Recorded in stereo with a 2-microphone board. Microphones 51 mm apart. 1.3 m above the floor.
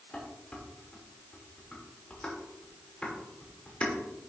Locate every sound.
0.1 s dishes clattering: 25° left (ahead or behind), 3 m